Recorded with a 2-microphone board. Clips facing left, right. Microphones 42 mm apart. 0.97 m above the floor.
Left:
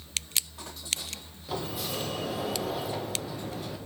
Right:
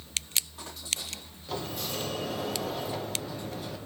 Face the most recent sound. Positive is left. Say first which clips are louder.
# left 1 dB
turn(degrees=5)  # may be behind; listen again after turning